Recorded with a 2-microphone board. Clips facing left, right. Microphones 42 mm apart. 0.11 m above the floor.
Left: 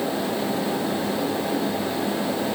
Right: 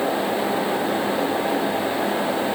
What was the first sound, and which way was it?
Only background noise.